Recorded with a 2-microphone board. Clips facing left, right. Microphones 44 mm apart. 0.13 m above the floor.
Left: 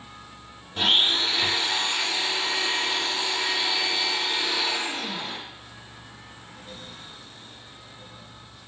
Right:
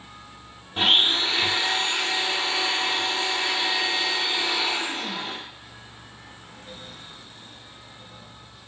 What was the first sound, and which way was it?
A blender, 25° right (ahead or behind).